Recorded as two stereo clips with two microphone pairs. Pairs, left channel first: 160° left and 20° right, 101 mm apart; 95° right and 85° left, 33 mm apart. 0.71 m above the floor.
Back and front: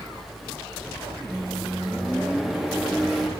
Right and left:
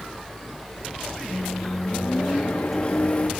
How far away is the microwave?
About 1.1 m.